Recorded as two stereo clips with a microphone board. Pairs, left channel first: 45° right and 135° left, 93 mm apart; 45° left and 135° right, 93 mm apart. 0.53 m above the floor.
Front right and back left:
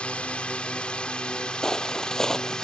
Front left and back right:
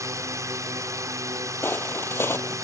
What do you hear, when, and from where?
0.0 s a drone: 115° right; by 2.6 s 120° right
1.6 s footsteps: 30° left